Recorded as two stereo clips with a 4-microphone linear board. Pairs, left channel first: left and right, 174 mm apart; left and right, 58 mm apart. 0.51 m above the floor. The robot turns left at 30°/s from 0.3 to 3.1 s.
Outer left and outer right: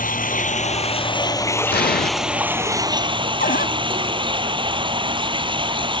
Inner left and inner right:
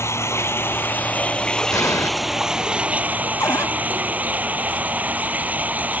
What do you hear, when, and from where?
0.0 s running water: 55° left; by 6.0 s 30° right
1.7 s an explosion: 75° left (ahead or behind); by 2.1 s 65° left (ahead or behind)
3.4 s a cupboard door: 60° left (ahead or behind)